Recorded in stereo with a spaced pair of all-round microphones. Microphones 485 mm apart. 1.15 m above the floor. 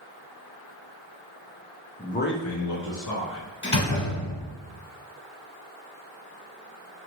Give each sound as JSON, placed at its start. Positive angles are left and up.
{"t": 2.0, "sound": "a man speaking", "side_deg": 15, "distance_m": 0.5}
{"t": 3.6, "sound": "a door slam", "side_deg": 70, "distance_m": 1.6}